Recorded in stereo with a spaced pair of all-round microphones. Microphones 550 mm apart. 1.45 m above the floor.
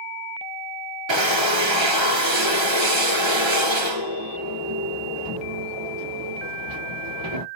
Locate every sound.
1.1 s a drill: 55° right (ahead or behind), 1.6 m